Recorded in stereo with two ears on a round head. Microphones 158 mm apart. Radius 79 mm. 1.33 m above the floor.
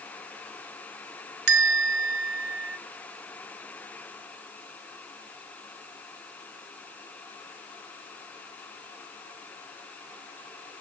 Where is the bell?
60° right (ahead or behind), 1.0 m.